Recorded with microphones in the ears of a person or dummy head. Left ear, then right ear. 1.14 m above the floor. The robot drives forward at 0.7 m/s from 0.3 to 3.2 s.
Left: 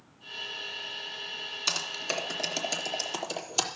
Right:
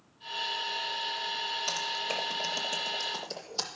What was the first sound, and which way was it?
Typing on a keyboard, 65° left (ahead or behind).